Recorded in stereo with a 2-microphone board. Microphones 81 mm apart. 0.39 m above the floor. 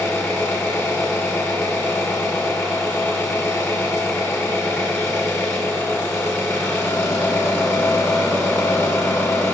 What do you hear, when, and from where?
0.0 s an engine running: 30° left (ahead or behind), 1.1 m